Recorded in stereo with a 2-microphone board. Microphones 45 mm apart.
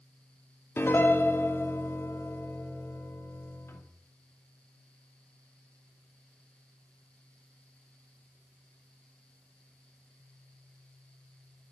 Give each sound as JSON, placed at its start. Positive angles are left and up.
{"t": 0.8, "sound": "a piano", "side_deg": 75, "distance_m": 2.0}